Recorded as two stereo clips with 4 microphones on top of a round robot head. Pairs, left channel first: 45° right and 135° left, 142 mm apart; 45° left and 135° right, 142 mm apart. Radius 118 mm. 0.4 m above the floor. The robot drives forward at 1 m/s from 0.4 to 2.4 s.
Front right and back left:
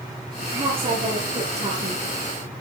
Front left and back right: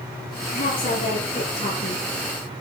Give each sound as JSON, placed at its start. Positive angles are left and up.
{"t": 0.5, "sound": "a woman speaking", "azimuth_deg": 80, "distance_m": 7.5}